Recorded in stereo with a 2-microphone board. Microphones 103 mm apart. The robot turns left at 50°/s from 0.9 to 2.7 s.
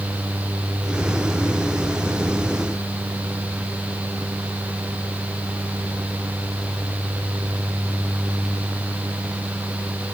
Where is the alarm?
I don't hear an alarm.